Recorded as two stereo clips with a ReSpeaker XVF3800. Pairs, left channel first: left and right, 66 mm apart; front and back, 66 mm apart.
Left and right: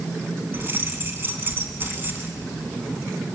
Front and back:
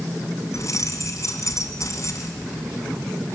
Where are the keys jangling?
35° right, 3 m.